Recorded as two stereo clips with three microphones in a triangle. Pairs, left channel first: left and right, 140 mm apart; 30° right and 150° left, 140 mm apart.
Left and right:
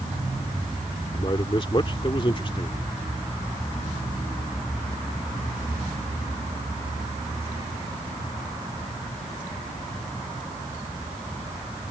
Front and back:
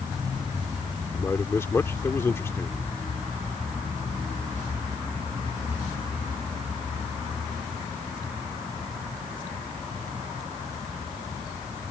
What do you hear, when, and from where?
1.1 s a man speaking: 40° left